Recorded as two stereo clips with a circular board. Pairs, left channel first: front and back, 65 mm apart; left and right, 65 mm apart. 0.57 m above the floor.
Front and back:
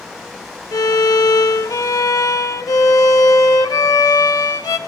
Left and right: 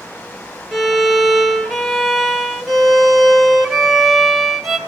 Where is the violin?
Straight ahead, 1.9 m.